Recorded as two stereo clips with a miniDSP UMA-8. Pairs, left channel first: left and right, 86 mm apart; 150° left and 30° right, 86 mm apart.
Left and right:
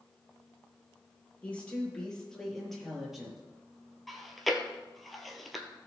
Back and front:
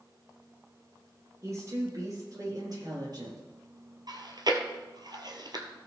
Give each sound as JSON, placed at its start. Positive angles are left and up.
{"t": 1.4, "sound": "a woman speaking", "azimuth_deg": 20, "distance_m": 4.0}
{"t": 4.1, "sound": "chewing", "azimuth_deg": 0, "distance_m": 1.2}